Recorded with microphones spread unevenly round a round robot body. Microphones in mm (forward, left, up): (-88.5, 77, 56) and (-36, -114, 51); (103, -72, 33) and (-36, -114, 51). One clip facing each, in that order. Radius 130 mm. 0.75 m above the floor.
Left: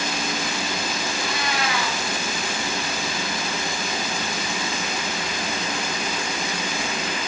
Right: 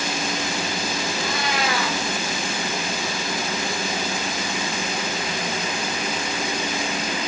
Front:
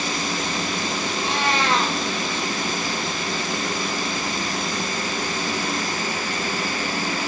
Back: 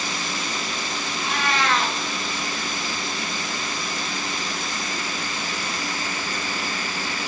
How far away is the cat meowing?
About 4 m.